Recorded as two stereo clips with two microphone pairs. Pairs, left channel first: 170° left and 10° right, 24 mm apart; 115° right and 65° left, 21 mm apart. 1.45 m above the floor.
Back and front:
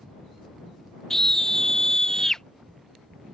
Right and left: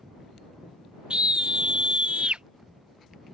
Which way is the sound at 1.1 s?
105° left.